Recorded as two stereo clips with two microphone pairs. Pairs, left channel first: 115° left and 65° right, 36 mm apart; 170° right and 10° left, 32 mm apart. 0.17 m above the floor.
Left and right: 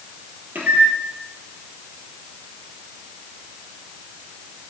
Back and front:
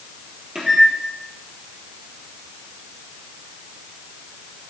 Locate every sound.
0.6 s a microwave: 60° right, 3 m